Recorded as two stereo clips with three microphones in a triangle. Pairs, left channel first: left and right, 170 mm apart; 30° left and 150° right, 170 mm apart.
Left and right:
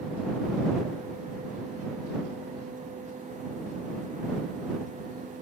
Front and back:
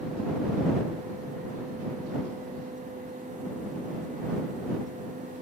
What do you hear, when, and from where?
Only background noise.